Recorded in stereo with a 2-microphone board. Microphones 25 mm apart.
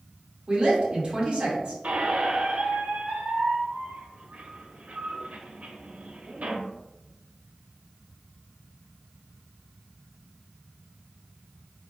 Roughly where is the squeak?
Right.